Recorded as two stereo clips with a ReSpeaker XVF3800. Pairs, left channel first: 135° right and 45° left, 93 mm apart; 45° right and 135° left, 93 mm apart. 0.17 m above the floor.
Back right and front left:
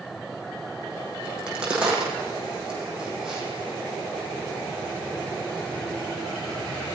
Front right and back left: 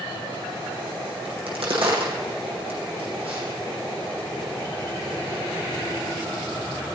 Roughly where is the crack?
Behind left.